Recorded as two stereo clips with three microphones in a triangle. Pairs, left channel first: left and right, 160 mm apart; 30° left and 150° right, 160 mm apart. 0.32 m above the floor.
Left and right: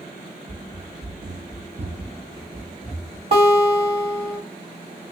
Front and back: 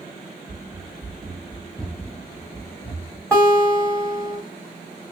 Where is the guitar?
50° right, 1.6 m.